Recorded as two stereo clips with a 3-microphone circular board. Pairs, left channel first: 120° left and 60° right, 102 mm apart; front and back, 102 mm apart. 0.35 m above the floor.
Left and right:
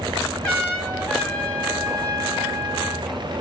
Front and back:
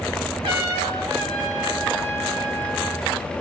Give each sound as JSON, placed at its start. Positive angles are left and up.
{"t": 0.4, "sound": "a trumpet", "azimuth_deg": -160, "distance_m": 2.5}